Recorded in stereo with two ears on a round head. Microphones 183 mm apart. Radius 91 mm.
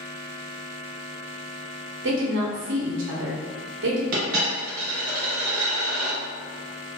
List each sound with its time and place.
2.0 s a woman speaking: 65° right (ahead or behind), 0.8 m
4.1 s a dropped coin: 40° right (ahead or behind), 1.2 m